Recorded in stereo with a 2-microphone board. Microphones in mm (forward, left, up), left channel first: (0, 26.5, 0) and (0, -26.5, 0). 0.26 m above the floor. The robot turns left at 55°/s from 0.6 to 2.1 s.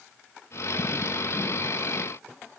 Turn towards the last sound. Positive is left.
No sound to turn to.